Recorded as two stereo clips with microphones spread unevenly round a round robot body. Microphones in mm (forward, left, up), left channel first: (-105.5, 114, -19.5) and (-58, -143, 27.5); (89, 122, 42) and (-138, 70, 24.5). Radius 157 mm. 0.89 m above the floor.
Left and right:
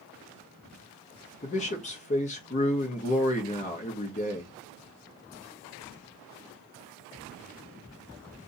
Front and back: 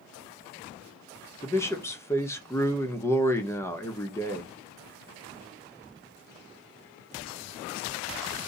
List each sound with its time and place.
1.4 s a man speaking: 90° left, 1.0 m